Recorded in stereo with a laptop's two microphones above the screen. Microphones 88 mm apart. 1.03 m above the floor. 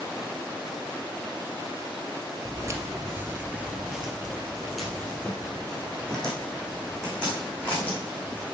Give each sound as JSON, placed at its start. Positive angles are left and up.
{"t": 2.5, "sound": "footsteps", "side_deg": -35, "distance_m": 1.3}